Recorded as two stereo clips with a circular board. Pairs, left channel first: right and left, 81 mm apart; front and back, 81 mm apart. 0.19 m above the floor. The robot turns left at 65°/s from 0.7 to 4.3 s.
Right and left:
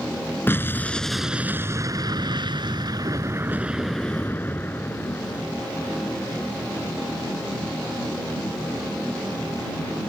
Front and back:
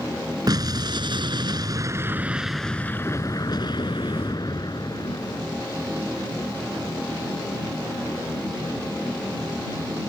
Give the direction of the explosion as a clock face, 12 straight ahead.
5 o'clock.